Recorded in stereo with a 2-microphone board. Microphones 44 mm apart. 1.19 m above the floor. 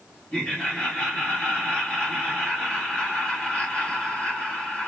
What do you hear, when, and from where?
0.3 s laughter: 25° left (ahead or behind), 3 m